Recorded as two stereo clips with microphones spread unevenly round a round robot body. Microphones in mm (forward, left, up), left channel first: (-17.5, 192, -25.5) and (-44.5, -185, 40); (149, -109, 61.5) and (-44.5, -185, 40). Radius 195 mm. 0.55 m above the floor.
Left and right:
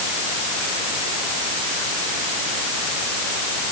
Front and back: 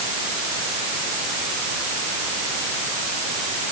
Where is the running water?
No running water in this recording.